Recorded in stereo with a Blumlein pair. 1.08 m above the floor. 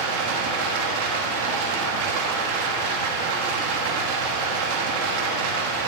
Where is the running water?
50° right, 1.1 m.